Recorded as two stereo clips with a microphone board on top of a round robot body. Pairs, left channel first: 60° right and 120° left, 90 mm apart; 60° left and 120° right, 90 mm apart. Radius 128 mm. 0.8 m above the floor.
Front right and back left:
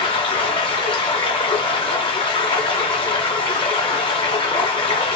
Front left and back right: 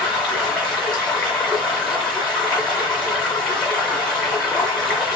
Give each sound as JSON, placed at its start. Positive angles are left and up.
{"t": 0.0, "sound": "running water", "azimuth_deg": -25, "distance_m": 0.8}